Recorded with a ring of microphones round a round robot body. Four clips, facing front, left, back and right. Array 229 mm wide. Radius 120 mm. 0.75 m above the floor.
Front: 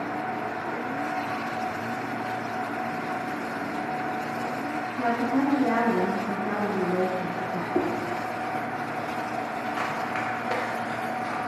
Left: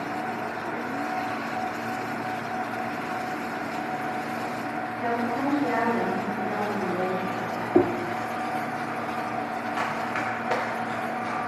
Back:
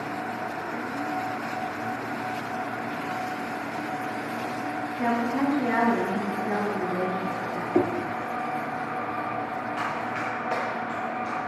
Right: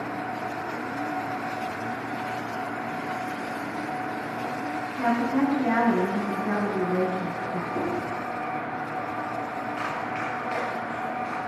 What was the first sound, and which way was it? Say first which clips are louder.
A woman speaking: right 4 dB, front 1 dB; 40° right.